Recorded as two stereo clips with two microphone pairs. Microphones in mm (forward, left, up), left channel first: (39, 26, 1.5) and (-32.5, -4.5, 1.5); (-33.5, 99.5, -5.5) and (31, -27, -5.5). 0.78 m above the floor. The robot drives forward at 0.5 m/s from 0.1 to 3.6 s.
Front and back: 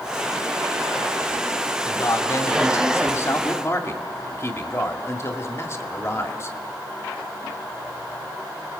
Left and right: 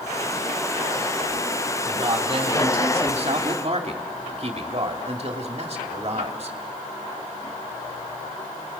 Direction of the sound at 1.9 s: 20° right.